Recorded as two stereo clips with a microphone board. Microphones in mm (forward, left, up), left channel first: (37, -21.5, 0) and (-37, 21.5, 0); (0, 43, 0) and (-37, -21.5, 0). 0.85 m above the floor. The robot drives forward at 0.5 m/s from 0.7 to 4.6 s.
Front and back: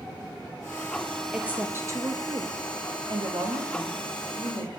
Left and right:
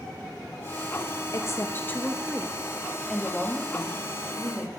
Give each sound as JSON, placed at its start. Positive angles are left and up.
{"t": 1.3, "sound": "a woman speaking", "azimuth_deg": 75, "distance_m": 0.6}